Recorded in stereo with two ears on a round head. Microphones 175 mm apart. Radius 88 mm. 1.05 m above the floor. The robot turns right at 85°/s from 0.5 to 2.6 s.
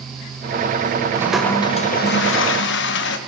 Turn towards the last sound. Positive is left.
turn(degrees=105)